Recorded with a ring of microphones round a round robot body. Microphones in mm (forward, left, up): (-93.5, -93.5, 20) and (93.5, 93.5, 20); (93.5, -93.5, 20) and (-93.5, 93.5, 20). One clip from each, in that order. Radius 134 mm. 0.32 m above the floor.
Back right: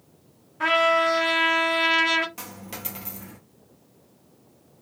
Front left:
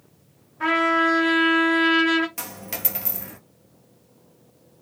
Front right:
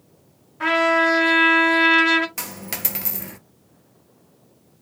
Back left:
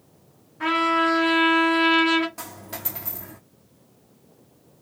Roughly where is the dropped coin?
Ahead right.